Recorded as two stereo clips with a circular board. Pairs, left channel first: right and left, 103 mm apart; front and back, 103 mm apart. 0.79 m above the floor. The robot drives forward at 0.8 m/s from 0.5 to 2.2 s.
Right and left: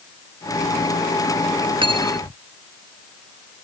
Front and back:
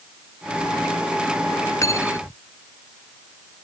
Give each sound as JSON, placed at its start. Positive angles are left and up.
{"t": 1.8, "sound": "cutlery clinking", "azimuth_deg": 60}